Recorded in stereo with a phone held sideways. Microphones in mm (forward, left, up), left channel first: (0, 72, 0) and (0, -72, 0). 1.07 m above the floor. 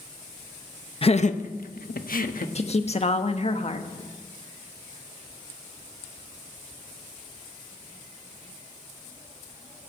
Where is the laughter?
40° left (ahead or behind), 0.9 m; by 2.5 s 70° left (ahead or behind), 1.6 m.